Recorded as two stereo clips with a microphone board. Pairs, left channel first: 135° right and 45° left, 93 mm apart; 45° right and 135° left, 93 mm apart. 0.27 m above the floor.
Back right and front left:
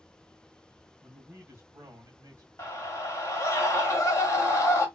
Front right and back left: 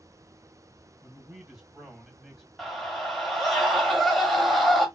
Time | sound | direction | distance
1.0 | a man speaking | 85° left | 1.3 m
2.6 | a scream | 135° right | 1.1 m